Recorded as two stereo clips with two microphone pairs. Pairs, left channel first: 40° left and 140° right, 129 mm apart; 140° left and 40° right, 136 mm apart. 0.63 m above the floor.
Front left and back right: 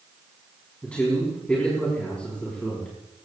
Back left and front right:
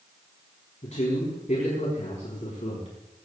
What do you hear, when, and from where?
0.8 s a man speaking: 120° left, 5 m